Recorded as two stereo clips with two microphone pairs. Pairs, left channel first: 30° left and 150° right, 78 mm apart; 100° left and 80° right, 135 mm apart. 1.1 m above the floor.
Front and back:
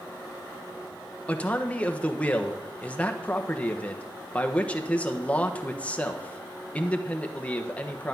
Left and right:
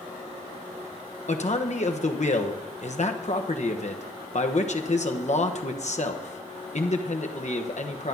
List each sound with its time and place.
1.3 s a man speaking: 95° left, 1.1 m